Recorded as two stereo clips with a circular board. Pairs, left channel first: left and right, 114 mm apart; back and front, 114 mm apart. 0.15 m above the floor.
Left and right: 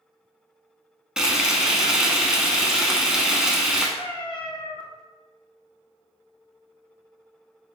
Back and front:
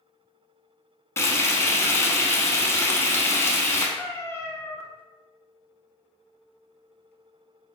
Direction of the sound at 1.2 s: 165° right.